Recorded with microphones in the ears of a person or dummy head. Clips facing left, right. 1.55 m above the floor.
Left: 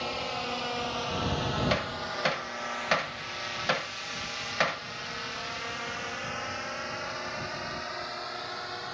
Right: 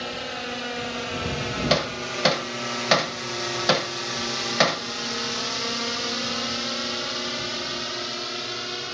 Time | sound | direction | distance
0.0 | a drone | 20° right (ahead or behind) | ?
1.7 | hammering | 60° right (ahead or behind) | ?